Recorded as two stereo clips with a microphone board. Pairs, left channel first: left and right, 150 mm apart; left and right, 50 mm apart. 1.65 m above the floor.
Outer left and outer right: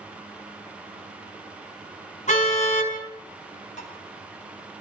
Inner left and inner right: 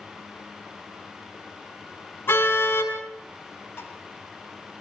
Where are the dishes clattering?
55° left (ahead or behind), 5.5 m.